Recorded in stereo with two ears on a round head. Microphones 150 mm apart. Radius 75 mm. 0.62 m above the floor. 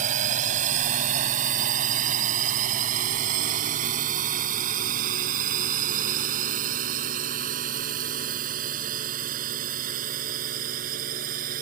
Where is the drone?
45° right (ahead or behind); by 11.6 s 50° right (ahead or behind).